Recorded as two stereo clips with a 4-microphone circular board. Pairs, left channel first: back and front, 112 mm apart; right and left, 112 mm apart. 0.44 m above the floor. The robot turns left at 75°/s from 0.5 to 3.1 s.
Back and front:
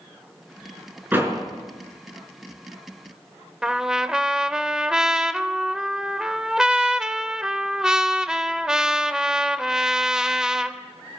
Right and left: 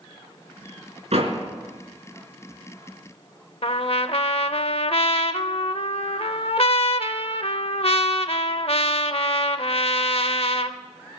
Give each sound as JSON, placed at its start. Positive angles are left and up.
{"t": 1.1, "sound": "a door slam", "azimuth_deg": 75, "distance_m": 4.0}
{"t": 3.6, "sound": "a trumpet", "azimuth_deg": -85, "distance_m": 0.7}